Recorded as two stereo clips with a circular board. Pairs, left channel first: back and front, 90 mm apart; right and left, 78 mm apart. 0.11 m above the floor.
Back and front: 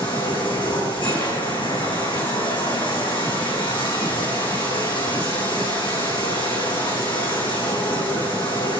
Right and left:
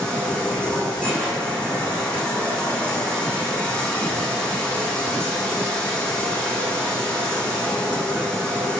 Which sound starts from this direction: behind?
Running water, at 0.0 s.